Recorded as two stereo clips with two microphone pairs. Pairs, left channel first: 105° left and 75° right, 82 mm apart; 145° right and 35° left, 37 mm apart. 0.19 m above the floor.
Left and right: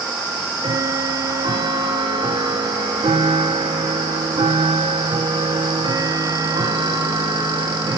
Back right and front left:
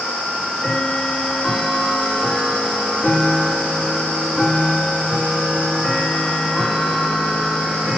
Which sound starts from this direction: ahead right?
Ticking, at 0.3 s.